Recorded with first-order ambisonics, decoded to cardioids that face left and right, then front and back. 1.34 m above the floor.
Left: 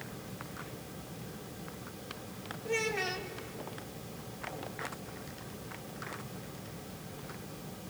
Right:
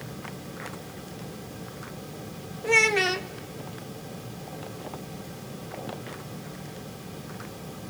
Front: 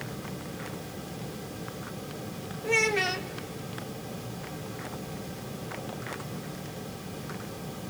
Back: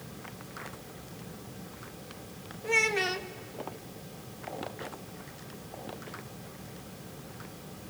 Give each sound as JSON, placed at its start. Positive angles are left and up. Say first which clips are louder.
{"t": 2.6, "sound": "a child speaking", "louder": "right 12 dB, front 1 dB", "azimuth_deg": -90, "distance_m": 0.7}